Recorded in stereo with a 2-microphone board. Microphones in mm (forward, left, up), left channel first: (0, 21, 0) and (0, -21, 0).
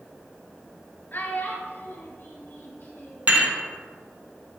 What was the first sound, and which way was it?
A child speaking, 45° left (ahead or behind).